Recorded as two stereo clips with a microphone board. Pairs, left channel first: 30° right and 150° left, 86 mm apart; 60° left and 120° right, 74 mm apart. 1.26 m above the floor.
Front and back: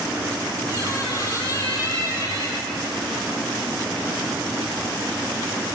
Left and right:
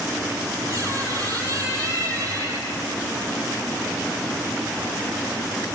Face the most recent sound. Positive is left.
turn(degrees=-70)